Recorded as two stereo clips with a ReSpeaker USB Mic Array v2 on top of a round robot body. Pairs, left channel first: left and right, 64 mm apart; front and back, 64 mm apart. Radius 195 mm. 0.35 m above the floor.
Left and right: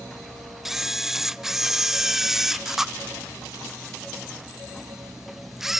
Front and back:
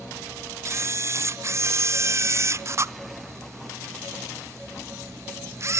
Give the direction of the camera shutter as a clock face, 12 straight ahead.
6 o'clock.